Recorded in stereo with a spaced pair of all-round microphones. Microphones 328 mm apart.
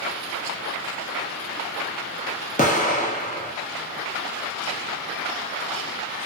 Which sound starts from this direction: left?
An explosion, at 2.6 s.